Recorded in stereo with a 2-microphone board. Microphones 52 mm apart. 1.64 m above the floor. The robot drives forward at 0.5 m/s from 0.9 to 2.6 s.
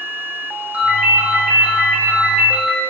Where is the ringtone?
30° right (ahead or behind), 0.9 m; by 2.8 s 25° right (ahead or behind), 1.1 m.